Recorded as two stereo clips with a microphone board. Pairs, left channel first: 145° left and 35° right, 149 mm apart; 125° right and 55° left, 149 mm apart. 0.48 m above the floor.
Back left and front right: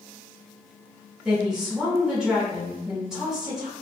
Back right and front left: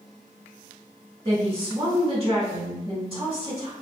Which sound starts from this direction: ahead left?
A woman speaking, at 1.2 s.